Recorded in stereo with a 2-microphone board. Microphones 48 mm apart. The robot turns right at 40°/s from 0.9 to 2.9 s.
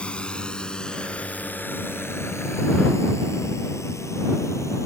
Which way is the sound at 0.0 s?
25° left (ahead or behind).